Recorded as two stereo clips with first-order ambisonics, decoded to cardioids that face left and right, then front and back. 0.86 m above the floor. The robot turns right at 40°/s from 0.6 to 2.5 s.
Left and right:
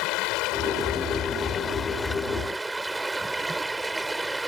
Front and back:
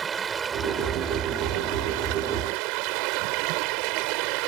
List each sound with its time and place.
0.0 s running water: 115° left; by 4.5 s 170° right